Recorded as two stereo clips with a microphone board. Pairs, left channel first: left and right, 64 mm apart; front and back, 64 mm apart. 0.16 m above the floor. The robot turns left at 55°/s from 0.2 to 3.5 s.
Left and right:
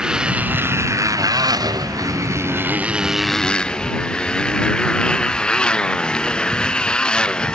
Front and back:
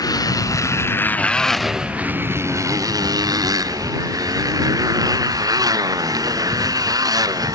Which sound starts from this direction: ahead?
A motorcycle, at 0.0 s.